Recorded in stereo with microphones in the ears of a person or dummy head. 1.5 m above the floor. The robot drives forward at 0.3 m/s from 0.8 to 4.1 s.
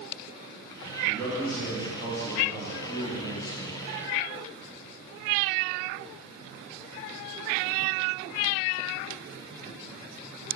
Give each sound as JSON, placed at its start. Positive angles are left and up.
{"t": 1.0, "sound": "a man speaking", "side_deg": 5, "distance_m": 3.0}